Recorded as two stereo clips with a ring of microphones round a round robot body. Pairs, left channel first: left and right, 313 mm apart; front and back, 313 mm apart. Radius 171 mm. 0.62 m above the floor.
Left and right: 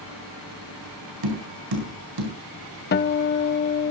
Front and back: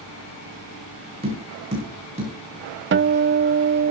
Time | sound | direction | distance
1.2 | tapping | 105° right | 4.5 m
2.9 | a guitar | 140° left | 0.7 m